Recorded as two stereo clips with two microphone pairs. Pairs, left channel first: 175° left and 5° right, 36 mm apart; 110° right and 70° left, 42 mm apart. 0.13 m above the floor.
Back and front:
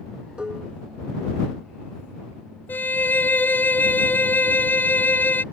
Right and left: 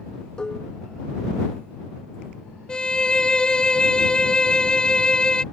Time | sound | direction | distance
0.4 | dishes clattering | 55° right | ?
2.7 | a violin | 175° right | ?